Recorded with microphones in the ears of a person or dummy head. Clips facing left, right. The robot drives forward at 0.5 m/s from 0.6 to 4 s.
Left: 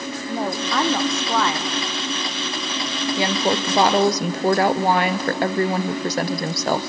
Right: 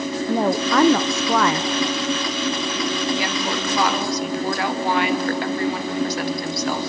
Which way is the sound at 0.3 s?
55° right (ahead or behind).